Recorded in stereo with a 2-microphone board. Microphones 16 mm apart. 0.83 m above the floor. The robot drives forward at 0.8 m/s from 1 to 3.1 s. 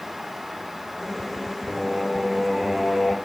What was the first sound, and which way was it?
Singing, 10° right (ahead or behind).